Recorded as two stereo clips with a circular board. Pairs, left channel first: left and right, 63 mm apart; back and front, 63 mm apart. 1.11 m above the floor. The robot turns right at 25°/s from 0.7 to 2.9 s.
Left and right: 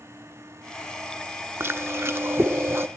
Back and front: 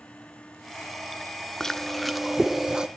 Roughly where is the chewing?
Right.